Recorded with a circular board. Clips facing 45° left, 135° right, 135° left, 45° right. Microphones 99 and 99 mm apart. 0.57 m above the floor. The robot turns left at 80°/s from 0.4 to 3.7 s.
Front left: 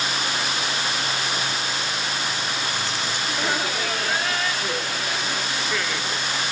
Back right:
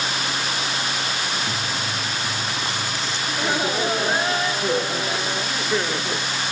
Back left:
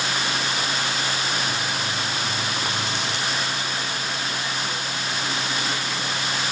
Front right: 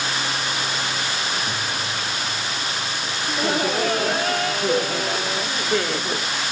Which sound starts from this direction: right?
Chewing, at 1.5 s.